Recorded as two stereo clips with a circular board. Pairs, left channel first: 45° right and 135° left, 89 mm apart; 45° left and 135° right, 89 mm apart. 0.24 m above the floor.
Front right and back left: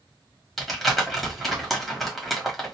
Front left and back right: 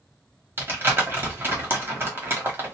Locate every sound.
0.6 s crumpling: 130° right, 1.1 m